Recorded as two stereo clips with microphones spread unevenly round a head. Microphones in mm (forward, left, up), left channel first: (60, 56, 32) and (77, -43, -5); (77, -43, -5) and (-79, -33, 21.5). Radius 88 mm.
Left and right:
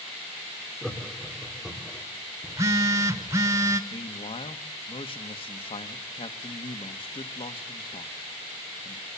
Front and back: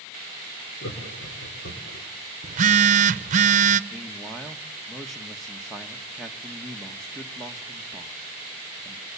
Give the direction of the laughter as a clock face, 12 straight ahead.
11 o'clock.